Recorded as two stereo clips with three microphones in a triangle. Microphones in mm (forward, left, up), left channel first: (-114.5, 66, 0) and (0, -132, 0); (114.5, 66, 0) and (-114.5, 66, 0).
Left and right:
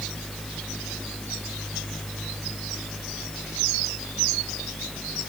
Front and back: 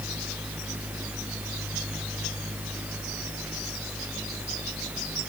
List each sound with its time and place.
Only background noise.